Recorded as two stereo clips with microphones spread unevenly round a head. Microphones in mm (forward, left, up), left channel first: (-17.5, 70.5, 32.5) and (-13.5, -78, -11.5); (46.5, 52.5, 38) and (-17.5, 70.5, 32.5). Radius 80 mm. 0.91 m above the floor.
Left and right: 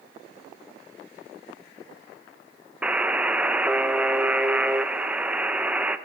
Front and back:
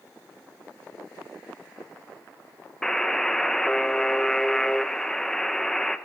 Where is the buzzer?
100° right, 0.8 m.